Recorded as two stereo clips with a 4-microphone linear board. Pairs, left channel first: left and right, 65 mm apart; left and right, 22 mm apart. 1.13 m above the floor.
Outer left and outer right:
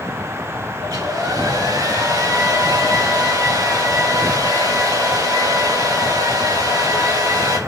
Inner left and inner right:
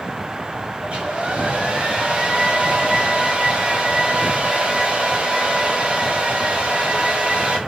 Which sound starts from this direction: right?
A hair dryer, at 0.8 s.